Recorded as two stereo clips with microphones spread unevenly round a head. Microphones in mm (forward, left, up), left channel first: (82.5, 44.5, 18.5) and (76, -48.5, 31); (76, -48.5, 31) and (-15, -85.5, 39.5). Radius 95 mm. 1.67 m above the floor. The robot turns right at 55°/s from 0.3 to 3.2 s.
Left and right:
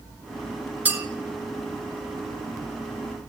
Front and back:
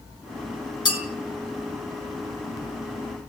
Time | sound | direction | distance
0.8 | a clink | 25° right | 3.5 m